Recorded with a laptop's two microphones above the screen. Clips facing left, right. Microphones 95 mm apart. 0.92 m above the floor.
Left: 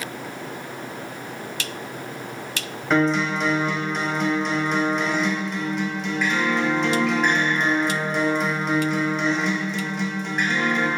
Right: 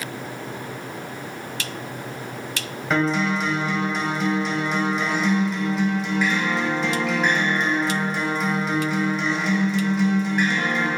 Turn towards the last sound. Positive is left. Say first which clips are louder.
# left 1 dB
turn(degrees=0)  # may be behind; listen again after turning